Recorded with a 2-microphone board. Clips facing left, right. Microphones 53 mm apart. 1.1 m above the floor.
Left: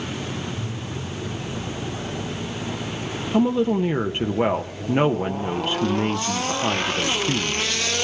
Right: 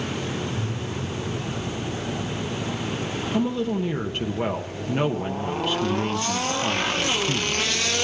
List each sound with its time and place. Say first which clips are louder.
0.6 s breathing: right 2 dB; 55° right (ahead or behind), 1.5 m
3.3 s a woman speaking: left 6 dB; 25° left (ahead or behind), 0.5 m